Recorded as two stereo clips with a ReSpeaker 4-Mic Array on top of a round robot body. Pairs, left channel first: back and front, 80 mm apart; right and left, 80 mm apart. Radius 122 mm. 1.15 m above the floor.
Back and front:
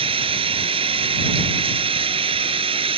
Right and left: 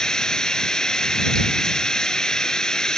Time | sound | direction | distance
0.0 | running water | 5° right | ?